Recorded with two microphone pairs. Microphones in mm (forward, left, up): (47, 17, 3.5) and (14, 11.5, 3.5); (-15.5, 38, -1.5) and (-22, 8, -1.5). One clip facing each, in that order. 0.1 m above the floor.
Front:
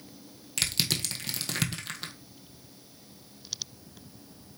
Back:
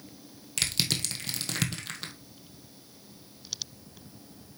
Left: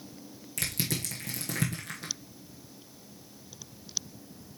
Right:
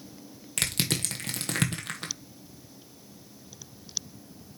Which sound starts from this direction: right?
Crushing, at 0.6 s.